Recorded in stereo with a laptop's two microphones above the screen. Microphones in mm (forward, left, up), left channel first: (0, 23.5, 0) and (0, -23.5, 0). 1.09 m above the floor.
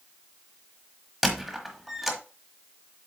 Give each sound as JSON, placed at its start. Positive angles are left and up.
{"t": 1.2, "sound": "a squeak", "side_deg": -5, "distance_m": 1.1}